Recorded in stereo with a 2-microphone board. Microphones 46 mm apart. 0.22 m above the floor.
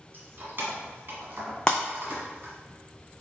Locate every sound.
0.1 s keys jangling: 50° right (ahead or behind), 1.2 m
1.7 s breaking glass: 20° left (ahead or behind), 0.7 m